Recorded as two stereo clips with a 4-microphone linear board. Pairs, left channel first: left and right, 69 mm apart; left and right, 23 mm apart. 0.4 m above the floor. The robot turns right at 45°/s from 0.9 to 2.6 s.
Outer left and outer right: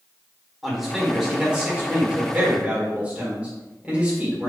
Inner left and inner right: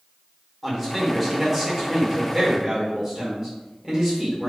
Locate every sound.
0.6 s a man speaking: 5° right (ahead or behind), 1.4 m; by 4.5 s 20° right (ahead or behind), 1.4 m